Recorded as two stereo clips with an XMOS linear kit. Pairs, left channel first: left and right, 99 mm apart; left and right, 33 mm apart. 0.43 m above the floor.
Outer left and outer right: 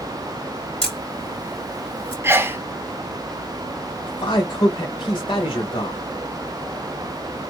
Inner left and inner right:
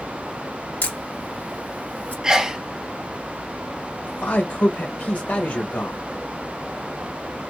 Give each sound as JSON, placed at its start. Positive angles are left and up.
{"t": 0.8, "sound": "a camera shutter", "side_deg": 60, "distance_m": 2.5}
{"t": 2.2, "sound": "a sneeze", "side_deg": -25, "distance_m": 0.8}
{"t": 4.0, "sound": "a man speaking", "side_deg": 55, "distance_m": 1.8}